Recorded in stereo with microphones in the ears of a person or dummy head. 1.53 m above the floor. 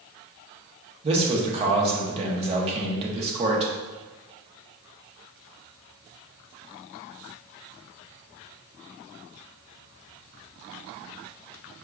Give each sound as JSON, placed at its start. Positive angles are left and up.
{"t": 1.0, "sound": "a man speaking", "side_deg": -30, "distance_m": 0.9}